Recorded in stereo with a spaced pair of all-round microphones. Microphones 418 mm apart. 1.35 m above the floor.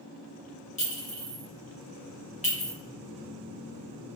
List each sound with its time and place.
0.8 s a clink: 20° left (ahead or behind), 1.1 m